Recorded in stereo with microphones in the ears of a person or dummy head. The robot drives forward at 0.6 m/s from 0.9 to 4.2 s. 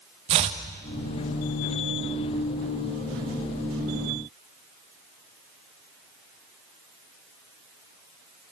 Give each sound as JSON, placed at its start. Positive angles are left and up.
{"t": 0.3, "sound": "chopping", "side_deg": -25, "distance_m": 1.0}